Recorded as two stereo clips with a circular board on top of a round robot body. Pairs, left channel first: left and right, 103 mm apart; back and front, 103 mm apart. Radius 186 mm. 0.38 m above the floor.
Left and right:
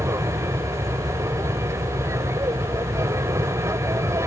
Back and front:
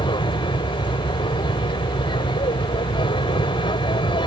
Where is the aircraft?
150° right.